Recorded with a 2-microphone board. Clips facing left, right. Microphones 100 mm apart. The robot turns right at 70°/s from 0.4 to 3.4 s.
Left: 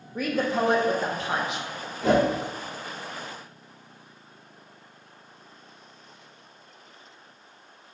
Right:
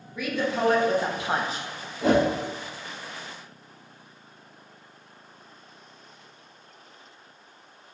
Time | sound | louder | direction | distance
0.1 | a woman speaking | left 2 dB | 140° left | 0.6 m
2.0 | a whoosh | even | 65° right (ahead or behind) | 1.5 m